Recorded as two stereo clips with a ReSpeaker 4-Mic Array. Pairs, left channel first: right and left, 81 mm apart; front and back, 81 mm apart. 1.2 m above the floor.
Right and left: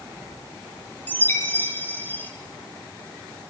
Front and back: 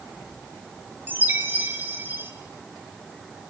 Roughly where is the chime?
Behind right.